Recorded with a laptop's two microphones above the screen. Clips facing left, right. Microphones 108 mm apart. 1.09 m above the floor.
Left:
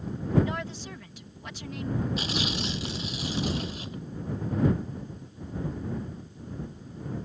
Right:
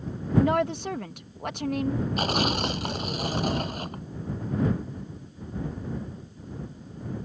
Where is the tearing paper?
50° right (ahead or behind).